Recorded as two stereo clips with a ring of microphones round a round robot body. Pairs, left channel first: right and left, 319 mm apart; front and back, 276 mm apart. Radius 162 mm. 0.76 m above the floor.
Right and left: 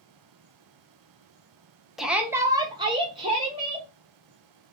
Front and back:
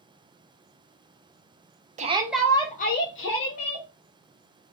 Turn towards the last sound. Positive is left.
turn(degrees=20)